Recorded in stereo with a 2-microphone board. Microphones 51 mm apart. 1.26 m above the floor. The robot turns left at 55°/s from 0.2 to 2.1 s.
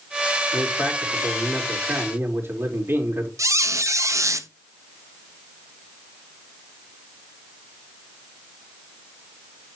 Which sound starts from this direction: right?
A squeak, at 3.4 s.